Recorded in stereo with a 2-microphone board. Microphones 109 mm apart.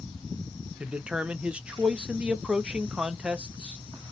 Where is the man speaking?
10° right (ahead or behind), 0.5 m.